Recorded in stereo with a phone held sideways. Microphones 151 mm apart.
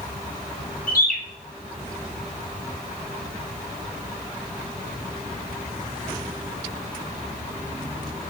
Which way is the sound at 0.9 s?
65° left (ahead or behind).